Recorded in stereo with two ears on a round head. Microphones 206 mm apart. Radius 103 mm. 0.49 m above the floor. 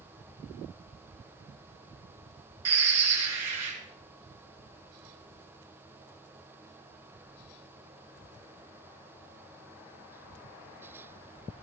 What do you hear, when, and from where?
2.6 s a bird: 75° right (ahead or behind), 4 m